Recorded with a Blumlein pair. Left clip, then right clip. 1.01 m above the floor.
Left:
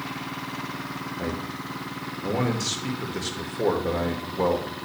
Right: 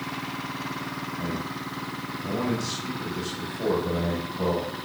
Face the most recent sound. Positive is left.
turn(degrees=50)